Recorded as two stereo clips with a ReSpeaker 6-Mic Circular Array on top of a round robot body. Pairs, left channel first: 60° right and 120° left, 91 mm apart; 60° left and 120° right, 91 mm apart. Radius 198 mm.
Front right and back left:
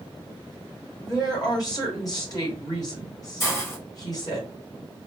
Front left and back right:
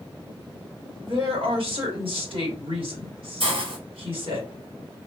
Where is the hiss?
120° right, 1.9 m.